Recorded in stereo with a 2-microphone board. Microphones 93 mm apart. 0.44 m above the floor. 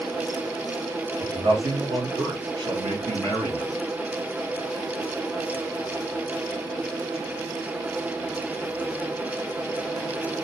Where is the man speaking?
60° right (ahead or behind), 2 m; by 3.7 s 70° right (ahead or behind), 3 m.